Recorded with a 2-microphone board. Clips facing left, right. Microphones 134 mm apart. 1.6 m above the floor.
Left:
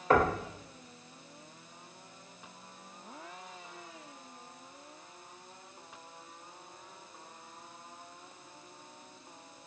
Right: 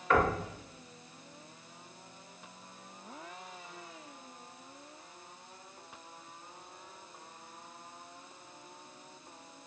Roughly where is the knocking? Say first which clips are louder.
Left 2 dB; left.